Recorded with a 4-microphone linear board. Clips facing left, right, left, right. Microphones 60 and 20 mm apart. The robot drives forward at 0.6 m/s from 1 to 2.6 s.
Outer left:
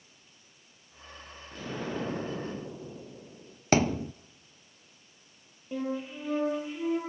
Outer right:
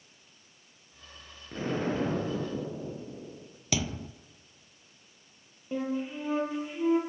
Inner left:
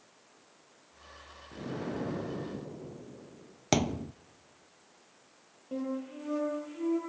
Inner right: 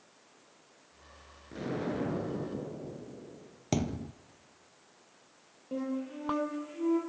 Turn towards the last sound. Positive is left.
turn(degrees=-10)  # may be behind; listen again after turning